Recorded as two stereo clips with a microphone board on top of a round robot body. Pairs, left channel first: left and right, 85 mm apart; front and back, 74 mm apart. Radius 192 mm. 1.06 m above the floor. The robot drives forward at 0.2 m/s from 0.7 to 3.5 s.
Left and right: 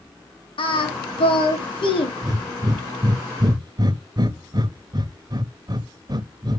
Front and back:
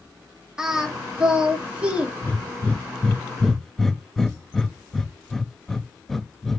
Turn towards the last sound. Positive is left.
turn(degrees=-85)